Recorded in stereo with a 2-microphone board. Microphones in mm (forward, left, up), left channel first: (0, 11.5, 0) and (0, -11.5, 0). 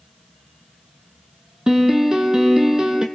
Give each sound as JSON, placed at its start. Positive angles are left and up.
{"t": 1.7, "sound": "a piano", "side_deg": -40, "distance_m": 1.5}